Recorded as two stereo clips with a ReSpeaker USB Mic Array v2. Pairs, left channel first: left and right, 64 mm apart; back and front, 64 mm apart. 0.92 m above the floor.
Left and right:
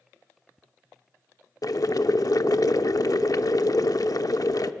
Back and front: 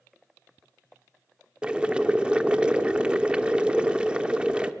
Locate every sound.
1.6 s boiling: 75° left, 0.8 m